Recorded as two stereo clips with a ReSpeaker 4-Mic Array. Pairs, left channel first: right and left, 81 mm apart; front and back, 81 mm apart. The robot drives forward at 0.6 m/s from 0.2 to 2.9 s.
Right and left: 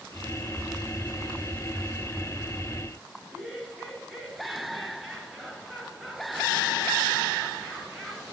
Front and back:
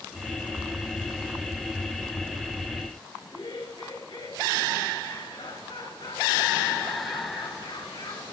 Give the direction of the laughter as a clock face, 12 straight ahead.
12 o'clock.